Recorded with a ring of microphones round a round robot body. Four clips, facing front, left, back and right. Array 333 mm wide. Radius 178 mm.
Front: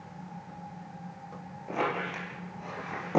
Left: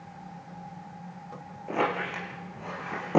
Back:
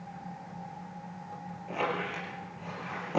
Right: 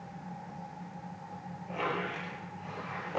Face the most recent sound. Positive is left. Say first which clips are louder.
# left 6 dB, front 1 dB
turn(degrees=70)